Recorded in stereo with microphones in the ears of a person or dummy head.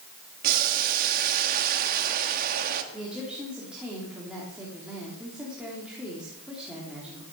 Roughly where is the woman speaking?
Centre.